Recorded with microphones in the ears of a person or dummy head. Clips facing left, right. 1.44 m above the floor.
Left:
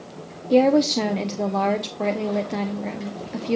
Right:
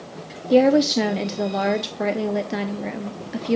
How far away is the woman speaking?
About 0.7 m.